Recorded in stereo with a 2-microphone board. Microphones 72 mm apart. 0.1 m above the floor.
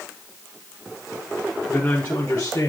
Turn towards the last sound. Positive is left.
turn(degrees=50)  # may be behind; listen again after turning